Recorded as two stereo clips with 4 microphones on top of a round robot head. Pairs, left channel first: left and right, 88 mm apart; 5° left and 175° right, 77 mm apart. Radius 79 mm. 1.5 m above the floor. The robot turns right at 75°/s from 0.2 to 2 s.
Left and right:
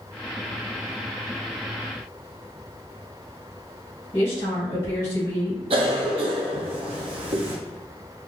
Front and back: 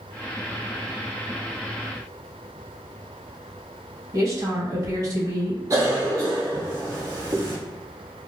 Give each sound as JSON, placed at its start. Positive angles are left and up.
{"t": 4.1, "sound": "a woman speaking", "azimuth_deg": 140, "distance_m": 1.9}
{"t": 5.7, "sound": "a cough", "azimuth_deg": -115, "distance_m": 0.8}